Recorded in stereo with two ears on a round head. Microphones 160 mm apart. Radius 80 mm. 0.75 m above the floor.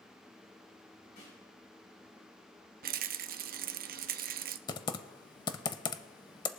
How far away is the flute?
No flute in this recording.